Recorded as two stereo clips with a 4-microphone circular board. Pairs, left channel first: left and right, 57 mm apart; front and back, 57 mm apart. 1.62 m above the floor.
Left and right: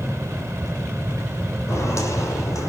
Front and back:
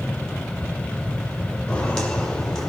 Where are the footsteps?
75° left, 3.5 m; by 2.7 s 85° left, 4 m.